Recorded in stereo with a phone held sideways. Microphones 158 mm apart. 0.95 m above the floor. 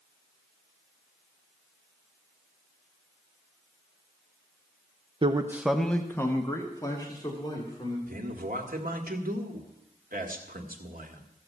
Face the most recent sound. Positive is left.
turn(degrees=-65)  # may be behind; listen again after turning